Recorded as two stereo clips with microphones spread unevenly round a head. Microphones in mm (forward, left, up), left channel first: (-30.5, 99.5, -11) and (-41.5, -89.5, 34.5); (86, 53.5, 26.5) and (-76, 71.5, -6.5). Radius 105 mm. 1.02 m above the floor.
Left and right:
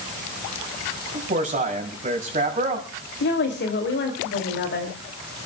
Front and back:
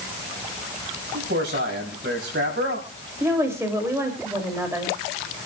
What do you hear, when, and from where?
1.1 s a man speaking: 145° right, 6 m
3.2 s a woman speaking: 100° left, 2.5 m